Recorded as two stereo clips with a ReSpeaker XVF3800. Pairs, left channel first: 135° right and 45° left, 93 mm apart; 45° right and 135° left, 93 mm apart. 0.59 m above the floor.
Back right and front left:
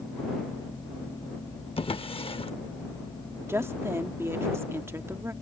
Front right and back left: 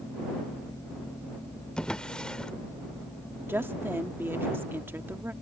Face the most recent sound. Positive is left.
turn(degrees=85)